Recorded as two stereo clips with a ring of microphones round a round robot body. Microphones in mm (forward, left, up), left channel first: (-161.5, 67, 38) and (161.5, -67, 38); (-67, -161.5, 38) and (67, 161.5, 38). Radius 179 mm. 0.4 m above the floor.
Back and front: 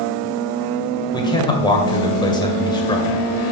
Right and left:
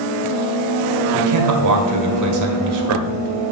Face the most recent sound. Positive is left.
turn(degrees=80)